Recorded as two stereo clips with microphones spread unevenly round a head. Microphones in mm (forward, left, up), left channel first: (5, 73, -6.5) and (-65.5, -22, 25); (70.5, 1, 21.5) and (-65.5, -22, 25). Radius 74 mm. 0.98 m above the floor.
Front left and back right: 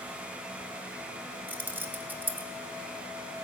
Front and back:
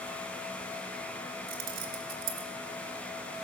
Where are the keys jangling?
160° left, 1.4 m.